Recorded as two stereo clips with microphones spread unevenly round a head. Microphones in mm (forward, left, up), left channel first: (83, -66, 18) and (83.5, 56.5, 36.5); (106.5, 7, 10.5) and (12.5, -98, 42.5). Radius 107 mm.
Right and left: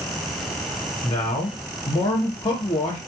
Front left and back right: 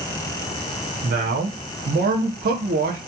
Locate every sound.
1.0 s a man speaking: 140° right, 0.6 m